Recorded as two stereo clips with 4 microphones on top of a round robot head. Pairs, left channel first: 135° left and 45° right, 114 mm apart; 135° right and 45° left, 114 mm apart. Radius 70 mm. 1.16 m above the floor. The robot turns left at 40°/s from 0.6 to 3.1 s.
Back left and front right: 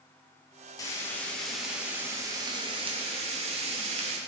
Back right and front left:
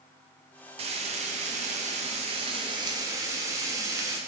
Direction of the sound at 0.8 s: 75° left.